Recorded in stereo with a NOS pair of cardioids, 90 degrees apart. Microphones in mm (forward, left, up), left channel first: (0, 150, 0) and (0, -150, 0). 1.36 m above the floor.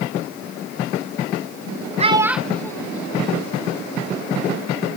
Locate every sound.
2.0 s a child speaking: 25° right, 0.8 m; by 3.9 s 20° left, 3 m